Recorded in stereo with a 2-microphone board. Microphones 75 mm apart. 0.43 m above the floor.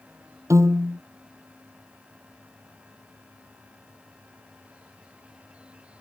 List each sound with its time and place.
0.5 s a piano: 40° right (ahead or behind)